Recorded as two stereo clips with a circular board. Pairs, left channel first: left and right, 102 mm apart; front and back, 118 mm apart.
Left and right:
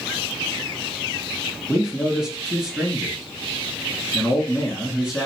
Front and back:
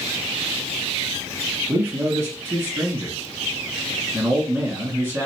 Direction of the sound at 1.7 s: 160° right.